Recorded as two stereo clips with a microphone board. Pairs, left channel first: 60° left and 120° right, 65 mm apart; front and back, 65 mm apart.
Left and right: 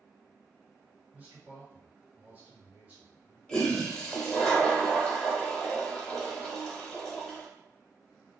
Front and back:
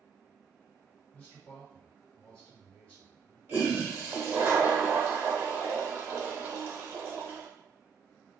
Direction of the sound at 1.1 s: 65° right.